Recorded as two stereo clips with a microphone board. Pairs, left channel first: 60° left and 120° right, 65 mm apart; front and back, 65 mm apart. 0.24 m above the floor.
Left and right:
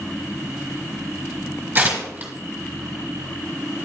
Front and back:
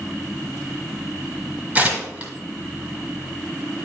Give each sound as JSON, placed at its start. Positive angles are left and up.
{"t": 1.8, "sound": "tearing paper", "azimuth_deg": -140, "distance_m": 1.3}